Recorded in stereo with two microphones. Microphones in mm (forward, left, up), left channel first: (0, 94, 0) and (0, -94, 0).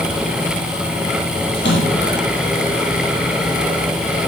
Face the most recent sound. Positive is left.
turn(degrees=70)  # may be behind; listen again after turning